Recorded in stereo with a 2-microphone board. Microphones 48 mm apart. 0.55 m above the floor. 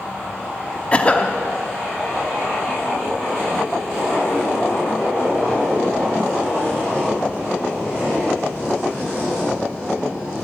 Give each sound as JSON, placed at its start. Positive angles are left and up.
{"t": 0.9, "sound": "a cough", "side_deg": 25, "distance_m": 0.7}